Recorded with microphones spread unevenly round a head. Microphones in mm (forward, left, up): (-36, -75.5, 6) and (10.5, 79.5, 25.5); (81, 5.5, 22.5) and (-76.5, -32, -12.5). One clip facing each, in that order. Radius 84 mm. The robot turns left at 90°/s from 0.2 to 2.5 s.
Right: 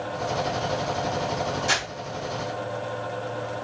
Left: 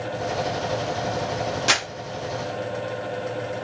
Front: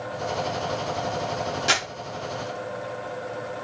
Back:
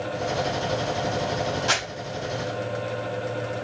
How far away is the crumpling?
About 1.1 m.